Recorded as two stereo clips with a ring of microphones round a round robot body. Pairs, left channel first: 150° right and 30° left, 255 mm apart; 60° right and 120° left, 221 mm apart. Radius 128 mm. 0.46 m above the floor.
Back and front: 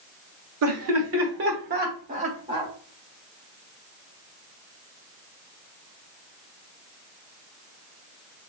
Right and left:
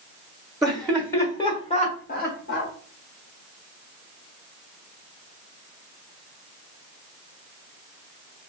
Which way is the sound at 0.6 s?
30° left.